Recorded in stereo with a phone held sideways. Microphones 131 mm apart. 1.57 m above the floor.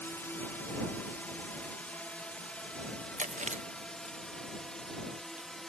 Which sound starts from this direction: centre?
A drone, at 0.0 s.